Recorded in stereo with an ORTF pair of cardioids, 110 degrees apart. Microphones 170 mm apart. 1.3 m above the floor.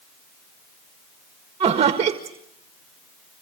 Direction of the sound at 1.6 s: 40° right.